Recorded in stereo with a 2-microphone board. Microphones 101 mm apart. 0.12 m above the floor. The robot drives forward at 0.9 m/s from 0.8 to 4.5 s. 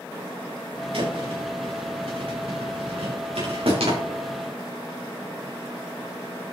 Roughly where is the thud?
Right.